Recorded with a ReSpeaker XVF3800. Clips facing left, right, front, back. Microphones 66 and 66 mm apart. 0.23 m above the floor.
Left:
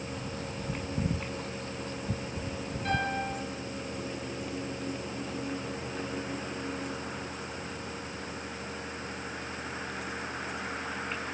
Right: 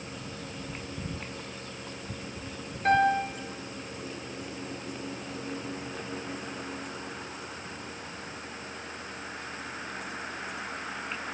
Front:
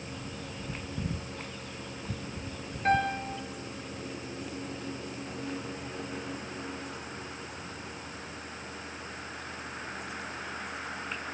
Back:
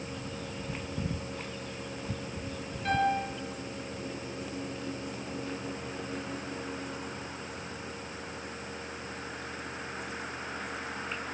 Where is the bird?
90° left, 0.8 m.